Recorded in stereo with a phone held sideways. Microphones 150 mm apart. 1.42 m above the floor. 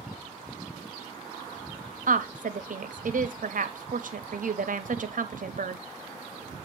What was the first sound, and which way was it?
A woman speaking, 65° right (ahead or behind).